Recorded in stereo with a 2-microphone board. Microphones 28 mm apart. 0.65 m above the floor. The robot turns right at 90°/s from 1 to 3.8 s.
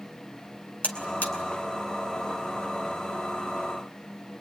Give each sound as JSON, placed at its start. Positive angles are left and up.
{"t": 0.8, "sound": "a buzzer", "side_deg": 60, "distance_m": 3.5}